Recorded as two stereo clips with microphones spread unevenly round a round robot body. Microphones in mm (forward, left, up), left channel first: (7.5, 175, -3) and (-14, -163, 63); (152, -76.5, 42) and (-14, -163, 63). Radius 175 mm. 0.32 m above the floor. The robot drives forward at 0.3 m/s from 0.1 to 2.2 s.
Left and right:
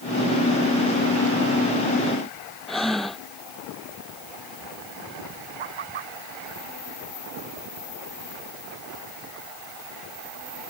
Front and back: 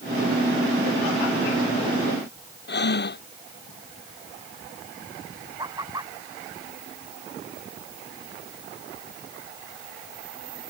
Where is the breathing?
5° right.